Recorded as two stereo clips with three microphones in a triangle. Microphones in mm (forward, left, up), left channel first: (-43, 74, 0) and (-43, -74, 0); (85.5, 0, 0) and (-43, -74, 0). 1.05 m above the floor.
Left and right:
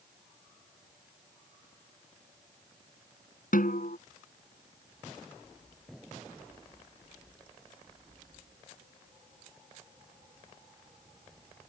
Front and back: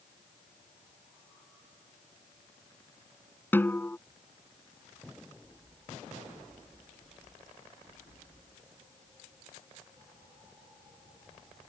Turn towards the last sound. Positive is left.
turn(degrees=105)